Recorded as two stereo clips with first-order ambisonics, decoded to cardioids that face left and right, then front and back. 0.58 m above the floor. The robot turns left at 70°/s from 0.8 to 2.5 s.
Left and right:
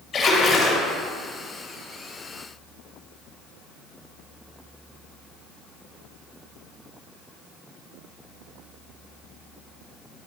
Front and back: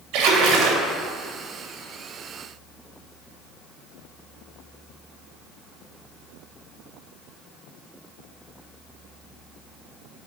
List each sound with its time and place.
0.1 s a splash: 155° left, 1.7 m; by 0.9 s 150° left, 1.7 m